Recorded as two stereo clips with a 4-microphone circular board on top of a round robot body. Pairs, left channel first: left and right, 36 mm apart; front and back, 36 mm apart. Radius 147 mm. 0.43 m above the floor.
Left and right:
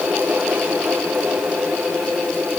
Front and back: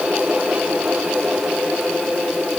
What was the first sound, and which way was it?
Only background noise.